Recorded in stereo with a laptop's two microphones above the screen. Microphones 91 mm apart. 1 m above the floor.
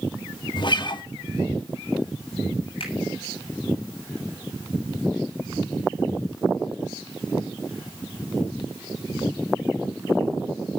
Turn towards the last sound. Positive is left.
turn(degrees=65)  # may be behind; listen again after turning